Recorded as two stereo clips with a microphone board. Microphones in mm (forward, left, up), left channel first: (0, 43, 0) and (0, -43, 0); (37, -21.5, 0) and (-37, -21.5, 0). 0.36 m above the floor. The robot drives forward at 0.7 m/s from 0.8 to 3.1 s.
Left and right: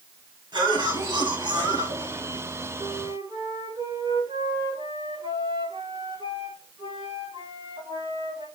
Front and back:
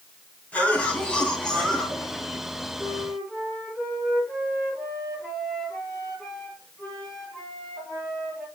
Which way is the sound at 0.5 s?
70° right.